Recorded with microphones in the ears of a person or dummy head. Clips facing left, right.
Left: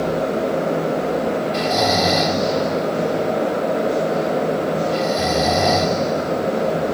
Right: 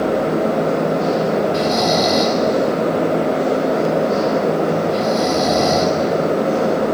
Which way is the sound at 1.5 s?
10° left (ahead or behind).